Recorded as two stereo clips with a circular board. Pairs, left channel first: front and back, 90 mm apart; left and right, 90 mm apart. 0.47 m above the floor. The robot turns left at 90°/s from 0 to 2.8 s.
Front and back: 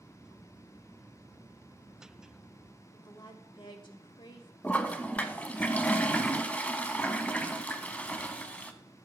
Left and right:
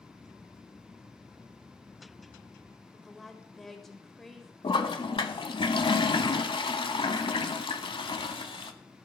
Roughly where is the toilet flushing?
Left.